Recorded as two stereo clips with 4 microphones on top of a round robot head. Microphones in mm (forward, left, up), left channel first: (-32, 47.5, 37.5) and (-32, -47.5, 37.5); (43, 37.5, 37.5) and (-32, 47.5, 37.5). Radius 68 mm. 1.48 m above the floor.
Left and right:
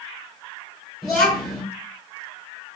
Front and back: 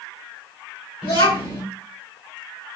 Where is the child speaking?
Straight ahead, 1.7 m.